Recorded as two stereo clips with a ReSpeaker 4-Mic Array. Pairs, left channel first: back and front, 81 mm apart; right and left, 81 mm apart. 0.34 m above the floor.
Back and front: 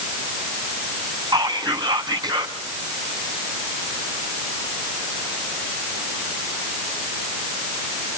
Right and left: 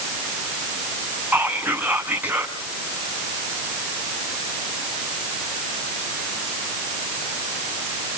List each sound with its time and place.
1.3 s whispering: 20° left, 3.5 m